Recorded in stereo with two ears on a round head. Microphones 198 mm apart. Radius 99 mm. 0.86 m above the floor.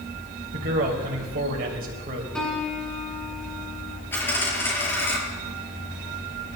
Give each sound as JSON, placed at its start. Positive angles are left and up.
{"t": 0.5, "sound": "a man speaking", "side_deg": -45, "distance_m": 3.5}
{"t": 2.4, "sound": "a piano", "side_deg": 5, "distance_m": 3.0}
{"t": 4.1, "sound": "a dropped coin", "side_deg": 10, "distance_m": 5.0}